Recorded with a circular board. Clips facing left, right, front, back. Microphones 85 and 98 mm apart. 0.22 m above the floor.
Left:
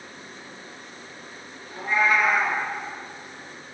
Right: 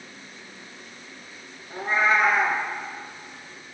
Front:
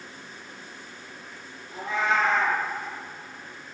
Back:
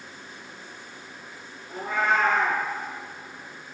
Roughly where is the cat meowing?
Behind right.